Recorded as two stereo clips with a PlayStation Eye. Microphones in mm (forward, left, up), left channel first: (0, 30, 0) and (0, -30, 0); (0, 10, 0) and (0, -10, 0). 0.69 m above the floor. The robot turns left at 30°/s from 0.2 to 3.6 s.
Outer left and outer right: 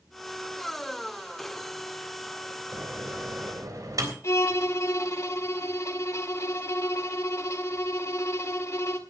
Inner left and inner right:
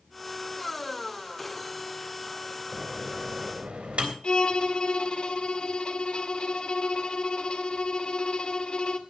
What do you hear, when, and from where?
2.7 s a microwave: 50° right (ahead or behind), 3.5 m; by 4.1 s 75° right (ahead or behind), 3.5 m
4.2 s a violin: 55° left (ahead or behind), 1.8 m